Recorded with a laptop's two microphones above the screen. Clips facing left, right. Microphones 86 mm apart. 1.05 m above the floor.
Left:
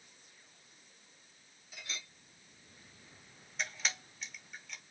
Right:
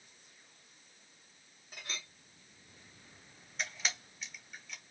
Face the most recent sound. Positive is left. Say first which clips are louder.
# even
turn(degrees=0)  # may be behind; listen again after turning